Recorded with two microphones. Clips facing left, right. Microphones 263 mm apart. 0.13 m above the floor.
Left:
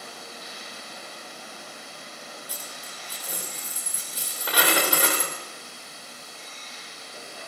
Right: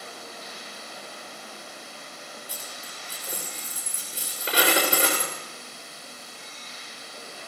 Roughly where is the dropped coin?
Right.